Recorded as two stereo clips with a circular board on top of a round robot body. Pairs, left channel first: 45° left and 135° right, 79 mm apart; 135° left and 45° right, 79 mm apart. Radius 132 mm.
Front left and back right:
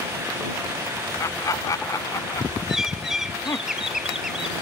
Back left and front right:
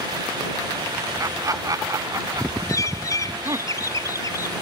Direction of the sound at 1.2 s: Straight ahead.